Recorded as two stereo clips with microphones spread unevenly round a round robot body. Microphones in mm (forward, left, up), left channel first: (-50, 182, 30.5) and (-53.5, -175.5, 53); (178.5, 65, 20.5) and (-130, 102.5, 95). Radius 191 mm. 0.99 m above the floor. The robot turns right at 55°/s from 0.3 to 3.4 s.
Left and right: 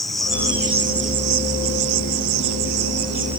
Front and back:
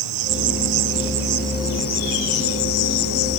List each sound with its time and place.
0.0 s an insect: straight behind; by 3.4 s 10° right